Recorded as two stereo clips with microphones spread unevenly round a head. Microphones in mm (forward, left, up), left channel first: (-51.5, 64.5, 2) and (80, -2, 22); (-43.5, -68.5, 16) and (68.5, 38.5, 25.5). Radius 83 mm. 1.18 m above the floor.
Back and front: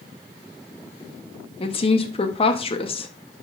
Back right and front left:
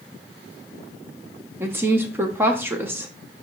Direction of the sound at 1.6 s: 120° left.